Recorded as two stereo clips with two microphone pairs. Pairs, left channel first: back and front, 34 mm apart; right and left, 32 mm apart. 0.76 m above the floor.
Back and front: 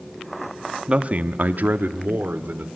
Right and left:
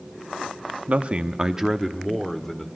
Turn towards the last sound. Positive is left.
turn(degrees=-10)